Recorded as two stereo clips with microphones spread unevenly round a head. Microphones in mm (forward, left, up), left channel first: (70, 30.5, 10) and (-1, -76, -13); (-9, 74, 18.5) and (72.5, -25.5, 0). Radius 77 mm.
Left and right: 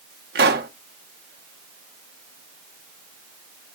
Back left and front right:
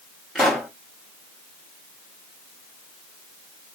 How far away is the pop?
About 0.9 m.